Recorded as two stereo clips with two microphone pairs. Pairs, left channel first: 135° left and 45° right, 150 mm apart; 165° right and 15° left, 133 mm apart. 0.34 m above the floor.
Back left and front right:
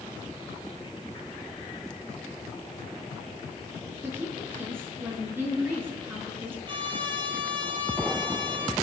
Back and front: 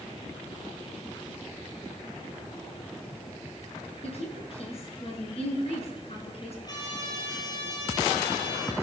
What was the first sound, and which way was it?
A woman speaking, 125° right.